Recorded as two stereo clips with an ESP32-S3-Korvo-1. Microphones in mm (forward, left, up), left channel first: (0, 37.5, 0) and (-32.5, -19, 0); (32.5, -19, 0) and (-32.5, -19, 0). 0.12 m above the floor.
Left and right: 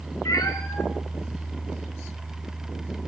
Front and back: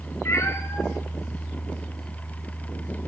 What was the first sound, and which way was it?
A cat meowing, 45° left.